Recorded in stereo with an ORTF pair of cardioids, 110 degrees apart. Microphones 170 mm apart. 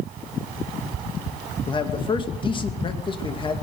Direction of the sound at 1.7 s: 30° left.